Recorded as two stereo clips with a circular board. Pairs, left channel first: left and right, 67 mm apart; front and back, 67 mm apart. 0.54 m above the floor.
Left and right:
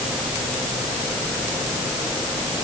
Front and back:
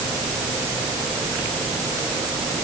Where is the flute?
I don't hear a flute.